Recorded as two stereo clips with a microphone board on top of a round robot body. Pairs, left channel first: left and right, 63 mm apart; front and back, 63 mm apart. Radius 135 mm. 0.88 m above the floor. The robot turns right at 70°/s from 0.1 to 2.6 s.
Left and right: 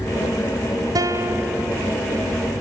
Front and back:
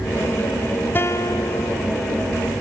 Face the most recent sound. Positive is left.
turn(degrees=55)